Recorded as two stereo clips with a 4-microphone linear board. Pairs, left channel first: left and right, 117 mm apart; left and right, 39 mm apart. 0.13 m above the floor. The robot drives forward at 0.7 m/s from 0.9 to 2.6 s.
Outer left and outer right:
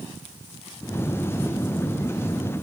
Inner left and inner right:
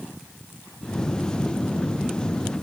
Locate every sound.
Only background noise.